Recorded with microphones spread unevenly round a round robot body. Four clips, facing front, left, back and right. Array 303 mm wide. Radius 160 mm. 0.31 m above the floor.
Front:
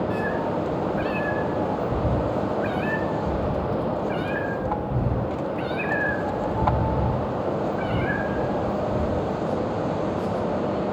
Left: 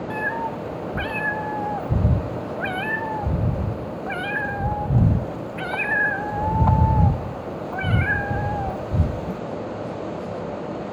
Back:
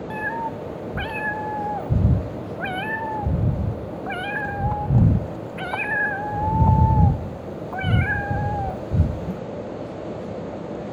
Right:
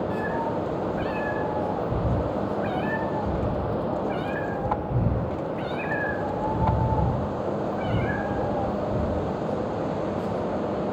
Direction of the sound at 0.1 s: 145° left.